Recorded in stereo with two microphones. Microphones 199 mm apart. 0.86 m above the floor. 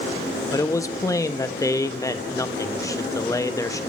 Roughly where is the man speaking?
Centre.